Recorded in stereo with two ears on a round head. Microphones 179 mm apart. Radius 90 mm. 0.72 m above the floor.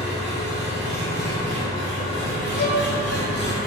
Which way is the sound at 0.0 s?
55° right (ahead or behind).